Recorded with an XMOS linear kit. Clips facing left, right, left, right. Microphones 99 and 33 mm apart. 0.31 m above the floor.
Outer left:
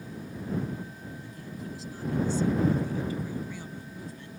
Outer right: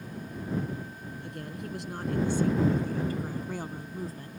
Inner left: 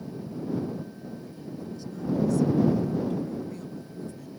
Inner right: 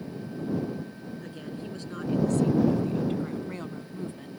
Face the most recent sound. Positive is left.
turn(degrees=-45)  # may be behind; listen again after turning